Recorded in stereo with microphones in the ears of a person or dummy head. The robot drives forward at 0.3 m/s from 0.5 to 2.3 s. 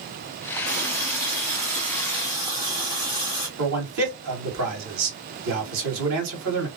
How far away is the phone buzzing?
I don't hear a phone buzzing.